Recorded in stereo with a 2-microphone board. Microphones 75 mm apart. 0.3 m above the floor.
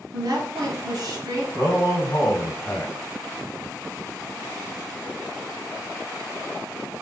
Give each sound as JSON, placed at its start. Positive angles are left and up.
{"t": 0.1, "sound": "a woman speaking", "side_deg": -55, "distance_m": 2.0}
{"t": 1.5, "sound": "a man speaking", "side_deg": 40, "distance_m": 2.0}